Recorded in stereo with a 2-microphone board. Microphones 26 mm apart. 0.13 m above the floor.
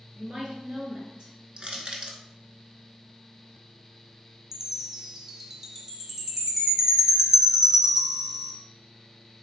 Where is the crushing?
40° right (ahead or behind), 0.7 m.